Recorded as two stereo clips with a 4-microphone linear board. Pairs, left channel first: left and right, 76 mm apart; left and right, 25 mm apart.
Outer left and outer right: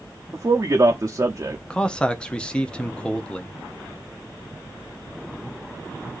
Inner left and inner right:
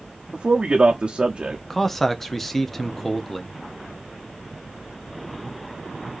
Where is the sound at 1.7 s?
10° left (ahead or behind), 0.6 m.